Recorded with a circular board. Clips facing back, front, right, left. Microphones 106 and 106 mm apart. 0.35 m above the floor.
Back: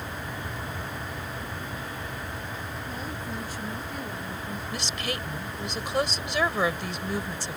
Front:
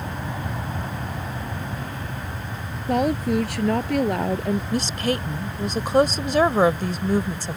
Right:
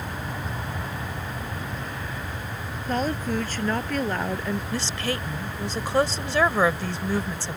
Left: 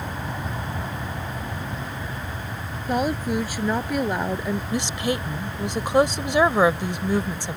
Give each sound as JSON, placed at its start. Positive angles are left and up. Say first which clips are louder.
{"t": 0.0, "sound": "an aircraft", "louder": "front 5 dB, left 2 dB", "azimuth_deg": 20}
{"t": 2.9, "sound": "a woman speaking", "louder": "front 18 dB, left 3 dB", "azimuth_deg": 10}
{"t": 4.7, "sound": "a woman speaking", "louder": "front 9 dB, left 4 dB", "azimuth_deg": 25}